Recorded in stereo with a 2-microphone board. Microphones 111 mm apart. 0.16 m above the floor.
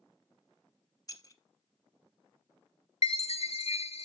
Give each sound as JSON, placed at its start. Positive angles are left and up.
{"t": 1.1, "sound": "keys jangling", "side_deg": 30, "distance_m": 0.8}
{"t": 3.0, "sound": "a chime", "side_deg": 70, "distance_m": 0.7}